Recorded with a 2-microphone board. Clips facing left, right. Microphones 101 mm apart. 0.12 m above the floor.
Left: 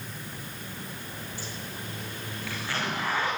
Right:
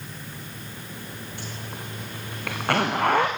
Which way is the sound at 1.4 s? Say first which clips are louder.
Right 2 dB; 60° right (ahead or behind).